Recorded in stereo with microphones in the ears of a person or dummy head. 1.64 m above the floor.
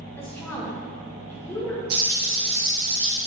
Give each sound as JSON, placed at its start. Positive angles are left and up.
{"t": 0.2, "sound": "a woman speaking", "side_deg": 10, "distance_m": 1.4}
{"t": 1.9, "sound": "frying", "side_deg": -50, "distance_m": 2.5}